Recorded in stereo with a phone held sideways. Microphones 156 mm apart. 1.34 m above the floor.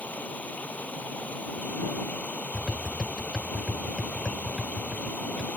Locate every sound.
0.0 s running water: 10° left (ahead or behind)
2.5 s tapping: 5° left (ahead or behind)